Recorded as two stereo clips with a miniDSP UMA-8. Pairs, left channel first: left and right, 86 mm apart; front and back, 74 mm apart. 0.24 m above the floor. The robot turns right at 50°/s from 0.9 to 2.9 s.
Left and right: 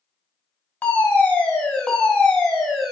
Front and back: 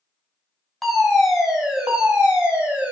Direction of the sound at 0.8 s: 80° left.